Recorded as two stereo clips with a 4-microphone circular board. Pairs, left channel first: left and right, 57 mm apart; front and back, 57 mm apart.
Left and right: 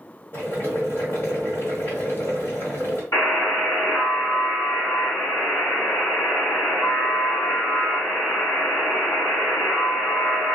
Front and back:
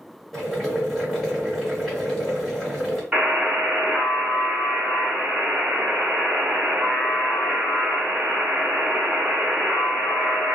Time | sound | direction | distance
0.3 | boiling | 85° left | 1.6 m
3.1 | a buzzer | 105° left | 1.4 m